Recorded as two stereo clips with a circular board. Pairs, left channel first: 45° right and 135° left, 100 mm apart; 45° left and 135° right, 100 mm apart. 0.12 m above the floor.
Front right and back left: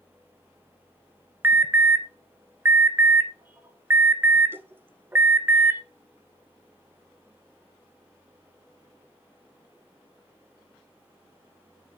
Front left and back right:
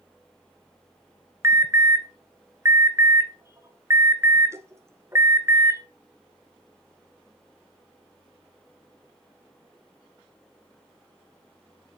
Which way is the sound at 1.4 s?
175° right.